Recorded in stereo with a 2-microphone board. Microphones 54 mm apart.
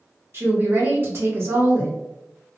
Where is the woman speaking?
45° right (ahead or behind), 1.1 m.